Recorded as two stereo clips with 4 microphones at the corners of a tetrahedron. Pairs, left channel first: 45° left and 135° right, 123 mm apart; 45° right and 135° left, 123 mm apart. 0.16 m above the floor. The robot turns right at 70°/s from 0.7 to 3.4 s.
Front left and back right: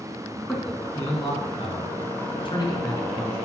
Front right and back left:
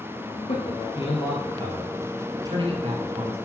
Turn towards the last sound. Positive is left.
turn(degrees=150)